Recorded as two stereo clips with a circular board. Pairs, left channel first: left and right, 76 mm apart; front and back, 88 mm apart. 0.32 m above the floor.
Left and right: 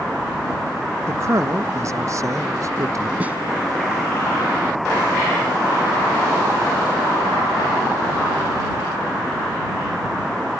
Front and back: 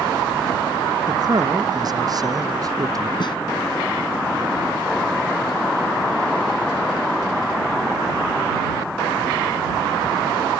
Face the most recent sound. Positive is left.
turn(degrees=-20)